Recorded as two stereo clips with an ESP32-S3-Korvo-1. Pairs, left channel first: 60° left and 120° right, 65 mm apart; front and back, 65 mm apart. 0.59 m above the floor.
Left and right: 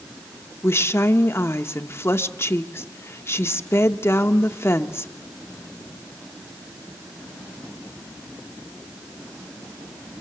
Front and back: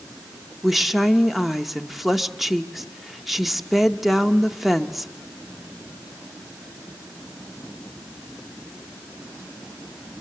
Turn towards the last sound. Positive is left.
turn(degrees=90)